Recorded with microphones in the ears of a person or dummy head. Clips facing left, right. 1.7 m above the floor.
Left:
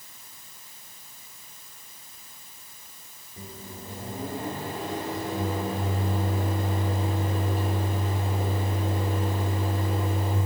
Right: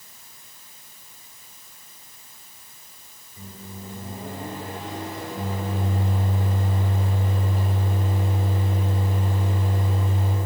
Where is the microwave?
60° left (ahead or behind), 4 m.